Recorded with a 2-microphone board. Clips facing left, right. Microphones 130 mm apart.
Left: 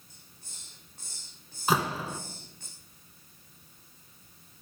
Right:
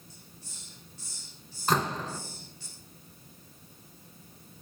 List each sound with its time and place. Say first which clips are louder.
0.1 s a hiss: right 6 dB; 55° left (ahead or behind), 5.5 m
1.7 s a door slam: even; 5° left (ahead or behind), 2 m